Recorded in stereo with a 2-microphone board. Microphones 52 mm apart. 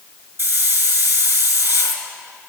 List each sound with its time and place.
0.4 s a hiss: 55° right (ahead or behind), 2.5 m